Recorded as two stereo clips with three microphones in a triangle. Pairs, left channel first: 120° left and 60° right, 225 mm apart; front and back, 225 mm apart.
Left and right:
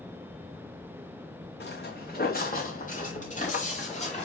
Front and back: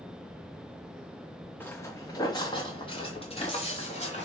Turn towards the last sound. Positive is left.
turn(degrees=60)